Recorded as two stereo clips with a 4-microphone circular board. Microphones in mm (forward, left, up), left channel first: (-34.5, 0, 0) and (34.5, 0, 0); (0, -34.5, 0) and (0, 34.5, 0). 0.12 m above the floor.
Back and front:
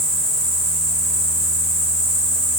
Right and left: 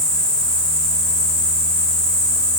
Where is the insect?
20° right, 4.5 m.